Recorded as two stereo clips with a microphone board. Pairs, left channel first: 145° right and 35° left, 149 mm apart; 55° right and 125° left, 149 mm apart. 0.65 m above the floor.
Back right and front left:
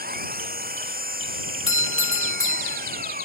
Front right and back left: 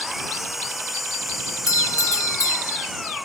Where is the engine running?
35° left.